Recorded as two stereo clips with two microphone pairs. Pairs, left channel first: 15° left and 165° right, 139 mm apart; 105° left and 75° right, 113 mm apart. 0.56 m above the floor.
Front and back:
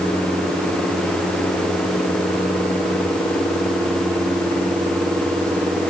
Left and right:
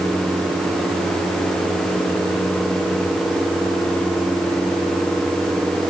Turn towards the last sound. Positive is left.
No sound to turn to.